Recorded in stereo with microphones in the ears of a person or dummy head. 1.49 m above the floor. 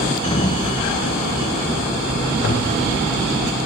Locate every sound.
0.2 s a sliding door: 25° left (ahead or behind), 0.9 m
2.4 s a toilet flushing: 65° left (ahead or behind), 1.9 m